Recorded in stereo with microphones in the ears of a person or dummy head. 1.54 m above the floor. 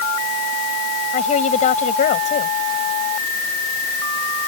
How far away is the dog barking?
I don't hear a dog barking.